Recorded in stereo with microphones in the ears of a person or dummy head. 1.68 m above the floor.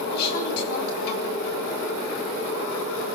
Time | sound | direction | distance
0.1 | a woman speaking | 60° left (ahead or behind) | 8.5 m